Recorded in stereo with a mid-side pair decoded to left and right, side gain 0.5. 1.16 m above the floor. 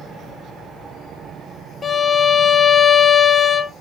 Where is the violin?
30° left, 0.5 m.